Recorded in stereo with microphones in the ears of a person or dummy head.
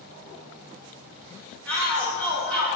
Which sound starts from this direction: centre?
A shout, at 1.7 s.